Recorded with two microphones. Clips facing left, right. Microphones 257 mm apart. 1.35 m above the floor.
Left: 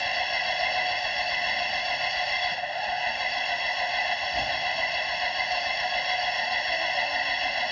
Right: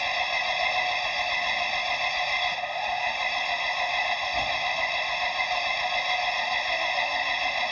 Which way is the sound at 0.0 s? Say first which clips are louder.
Even; 5° left (ahead or behind).